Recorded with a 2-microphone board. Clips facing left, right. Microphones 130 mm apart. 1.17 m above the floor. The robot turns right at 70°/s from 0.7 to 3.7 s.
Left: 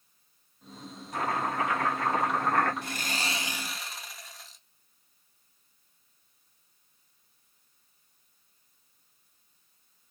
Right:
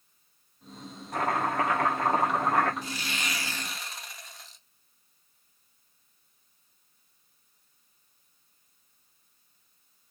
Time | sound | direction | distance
1.1 | chopping | 115° right | 1.4 m
2.8 | sawing | 115° left | 0.5 m